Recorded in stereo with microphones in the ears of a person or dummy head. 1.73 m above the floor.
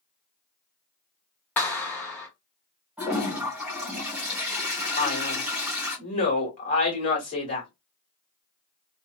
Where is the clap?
15° left (ahead or behind), 0.9 m.